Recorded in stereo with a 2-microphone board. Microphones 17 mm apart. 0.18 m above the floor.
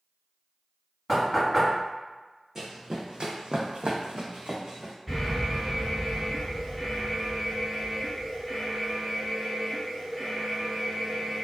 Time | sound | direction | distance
1.1 | knocking | 10° left (ahead or behind) | 1.6 m
2.5 | running footsteps | 20° right (ahead or behind) | 0.8 m
5.1 | an alarm | 15° right (ahead or behind) | 2.0 m